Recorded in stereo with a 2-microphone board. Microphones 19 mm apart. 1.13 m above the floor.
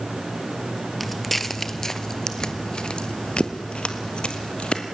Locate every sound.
1.0 s footsteps: centre (ahead or behind), 1.5 m; by 4.8 s 55° left (ahead or behind), 2 m